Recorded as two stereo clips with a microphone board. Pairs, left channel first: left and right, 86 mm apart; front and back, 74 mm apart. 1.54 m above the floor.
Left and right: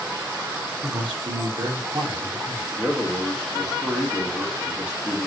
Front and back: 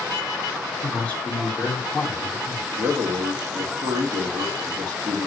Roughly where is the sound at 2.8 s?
Behind.